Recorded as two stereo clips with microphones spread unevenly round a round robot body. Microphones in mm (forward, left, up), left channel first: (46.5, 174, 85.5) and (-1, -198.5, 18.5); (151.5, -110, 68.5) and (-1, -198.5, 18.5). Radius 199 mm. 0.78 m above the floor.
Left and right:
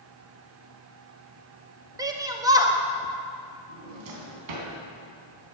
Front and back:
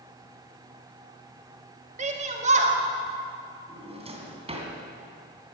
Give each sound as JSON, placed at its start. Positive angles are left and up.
{"t": 2.0, "sound": "a shout", "azimuth_deg": -170, "distance_m": 1.7}
{"t": 3.7, "sound": "a drawer", "azimuth_deg": -90, "distance_m": 3.0}